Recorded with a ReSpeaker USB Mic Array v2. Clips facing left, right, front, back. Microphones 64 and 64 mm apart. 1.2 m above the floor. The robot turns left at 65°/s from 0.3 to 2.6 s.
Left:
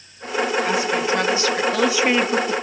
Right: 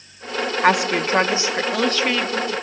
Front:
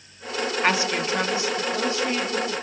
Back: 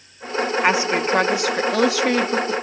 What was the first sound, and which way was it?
A woman speaking, 105° right.